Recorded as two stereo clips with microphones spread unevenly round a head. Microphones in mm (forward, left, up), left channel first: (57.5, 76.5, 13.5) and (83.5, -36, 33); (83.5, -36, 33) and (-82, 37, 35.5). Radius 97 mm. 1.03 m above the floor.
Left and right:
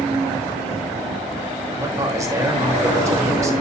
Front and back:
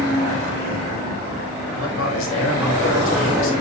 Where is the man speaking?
15° right, 3.5 m.